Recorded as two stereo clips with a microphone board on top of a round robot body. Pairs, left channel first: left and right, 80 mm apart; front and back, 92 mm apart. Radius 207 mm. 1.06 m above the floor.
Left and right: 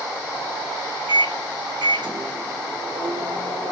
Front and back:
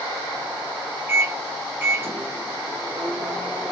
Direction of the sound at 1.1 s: 115° right.